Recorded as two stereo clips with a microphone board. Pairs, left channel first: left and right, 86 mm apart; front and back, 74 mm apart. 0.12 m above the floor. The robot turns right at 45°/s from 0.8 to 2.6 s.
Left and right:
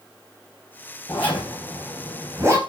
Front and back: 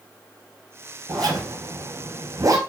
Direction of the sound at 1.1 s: 150° left.